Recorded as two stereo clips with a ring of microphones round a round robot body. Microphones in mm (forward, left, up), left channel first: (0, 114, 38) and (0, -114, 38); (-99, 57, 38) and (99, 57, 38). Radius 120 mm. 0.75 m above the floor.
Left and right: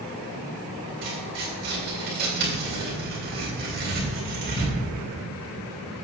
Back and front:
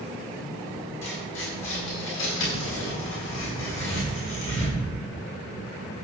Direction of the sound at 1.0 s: 140° right.